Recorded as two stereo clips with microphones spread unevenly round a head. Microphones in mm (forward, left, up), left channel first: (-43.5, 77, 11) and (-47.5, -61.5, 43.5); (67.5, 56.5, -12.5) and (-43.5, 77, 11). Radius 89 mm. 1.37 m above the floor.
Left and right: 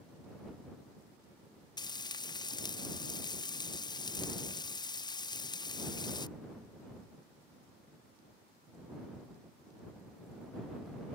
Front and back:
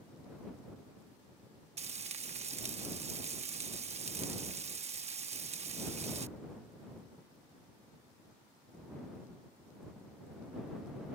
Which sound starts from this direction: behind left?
Frying, at 1.8 s.